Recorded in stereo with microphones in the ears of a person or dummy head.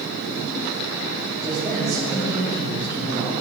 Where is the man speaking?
10° left (ahead or behind), 2.5 m; by 3.3 s 35° left (ahead or behind), 2.5 m.